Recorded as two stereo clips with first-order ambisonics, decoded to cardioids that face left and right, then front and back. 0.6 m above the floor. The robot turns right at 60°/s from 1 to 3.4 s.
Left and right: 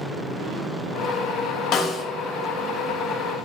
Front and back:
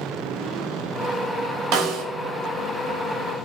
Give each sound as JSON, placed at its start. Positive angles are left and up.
{"t": 1.7, "sound": "a snare drum", "azimuth_deg": 140, "distance_m": 1.0}